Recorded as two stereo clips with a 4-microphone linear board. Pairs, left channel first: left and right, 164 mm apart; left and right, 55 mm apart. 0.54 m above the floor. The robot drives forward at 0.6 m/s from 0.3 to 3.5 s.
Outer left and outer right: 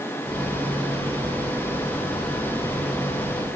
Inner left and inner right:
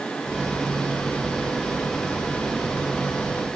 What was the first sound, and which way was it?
Only background noise.